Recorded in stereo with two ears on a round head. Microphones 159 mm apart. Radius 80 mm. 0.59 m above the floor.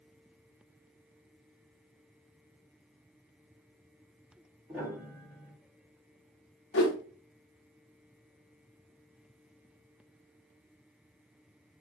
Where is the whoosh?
65° left (ahead or behind), 0.8 m.